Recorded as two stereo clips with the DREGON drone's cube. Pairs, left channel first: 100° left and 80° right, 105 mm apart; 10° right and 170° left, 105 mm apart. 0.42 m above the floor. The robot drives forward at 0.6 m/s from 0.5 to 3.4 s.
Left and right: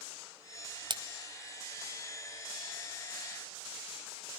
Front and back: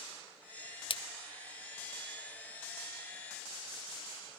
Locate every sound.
0.9 s a splash: 40° right, 1.1 m; by 1.0 s 45° right, 1.0 m